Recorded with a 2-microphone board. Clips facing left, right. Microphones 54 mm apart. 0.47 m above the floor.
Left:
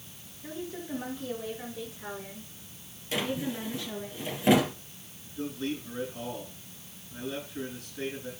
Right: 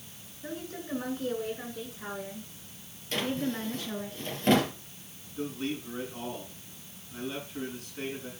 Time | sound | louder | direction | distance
0.4 | a woman speaking | even | 75° right (ahead or behind) | 5 m
3.1 | a drawer | even | 10° left (ahead or behind) | 2.5 m
5.4 | a man speaking | even | 65° right (ahead or behind) | 6 m